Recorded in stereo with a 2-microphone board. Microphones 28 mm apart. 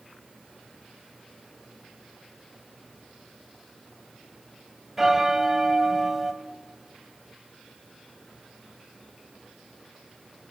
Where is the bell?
15° right (ahead or behind), 2 m.